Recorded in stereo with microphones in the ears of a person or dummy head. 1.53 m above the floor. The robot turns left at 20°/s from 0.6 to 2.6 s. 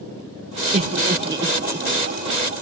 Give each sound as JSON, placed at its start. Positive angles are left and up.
{"t": 0.7, "sound": "laughter", "side_deg": -30, "distance_m": 0.8}